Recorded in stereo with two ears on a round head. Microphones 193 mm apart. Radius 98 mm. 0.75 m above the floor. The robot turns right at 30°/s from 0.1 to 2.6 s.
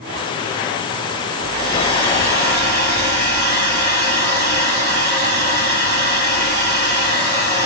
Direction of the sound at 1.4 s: 140° right.